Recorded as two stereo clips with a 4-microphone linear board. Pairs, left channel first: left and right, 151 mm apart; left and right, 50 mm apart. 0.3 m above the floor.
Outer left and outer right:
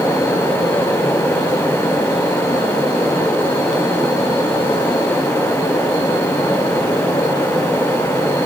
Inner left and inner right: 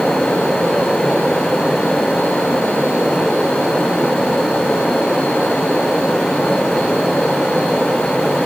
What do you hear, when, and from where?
Only background noise.